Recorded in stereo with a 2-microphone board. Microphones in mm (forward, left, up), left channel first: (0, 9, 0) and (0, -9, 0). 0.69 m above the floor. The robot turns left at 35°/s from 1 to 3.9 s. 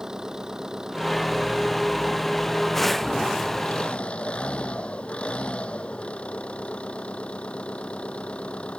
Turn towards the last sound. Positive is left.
turn(degrees=110)